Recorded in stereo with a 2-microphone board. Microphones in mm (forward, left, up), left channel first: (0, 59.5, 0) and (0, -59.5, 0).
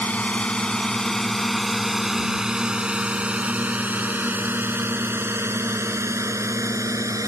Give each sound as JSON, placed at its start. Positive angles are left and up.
{"t": 0.0, "sound": "a drone", "side_deg": 15}